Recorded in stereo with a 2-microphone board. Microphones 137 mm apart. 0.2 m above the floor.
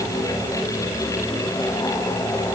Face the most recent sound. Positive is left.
No sound to turn to.